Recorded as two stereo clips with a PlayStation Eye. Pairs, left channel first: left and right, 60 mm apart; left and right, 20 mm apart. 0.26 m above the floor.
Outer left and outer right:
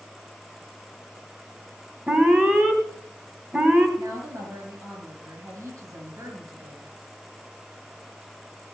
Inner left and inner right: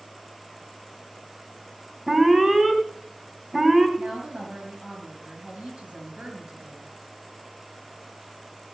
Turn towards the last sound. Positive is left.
turn(degrees=-65)  # may be behind; listen again after turning